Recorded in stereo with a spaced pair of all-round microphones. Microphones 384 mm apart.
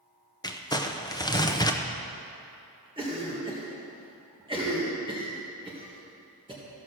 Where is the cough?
15° right (ahead or behind), 1.7 m.